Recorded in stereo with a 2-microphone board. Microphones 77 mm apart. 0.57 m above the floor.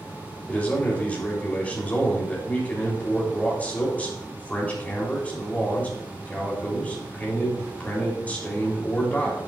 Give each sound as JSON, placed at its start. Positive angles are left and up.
{"t": 0.5, "sound": "a man speaking", "side_deg": 20, "distance_m": 3.0}